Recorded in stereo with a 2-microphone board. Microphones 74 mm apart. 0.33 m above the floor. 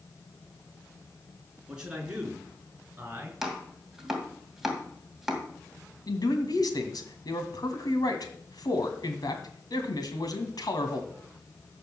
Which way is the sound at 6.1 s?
65° left (ahead or behind).